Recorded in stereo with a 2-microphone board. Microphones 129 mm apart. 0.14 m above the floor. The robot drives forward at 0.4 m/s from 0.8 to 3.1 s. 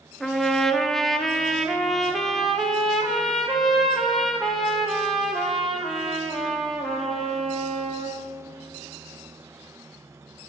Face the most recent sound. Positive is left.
turn(degrees=0)  # may be behind; listen again after turning